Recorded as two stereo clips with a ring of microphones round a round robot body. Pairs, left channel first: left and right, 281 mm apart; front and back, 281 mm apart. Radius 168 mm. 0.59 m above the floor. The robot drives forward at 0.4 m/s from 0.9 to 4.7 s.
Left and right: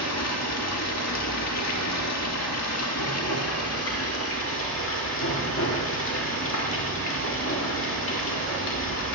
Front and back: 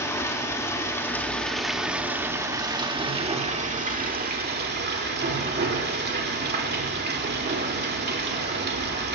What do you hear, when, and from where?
0.0 s running water: 80° left, 1.8 m; by 9.2 s 130° left, 2 m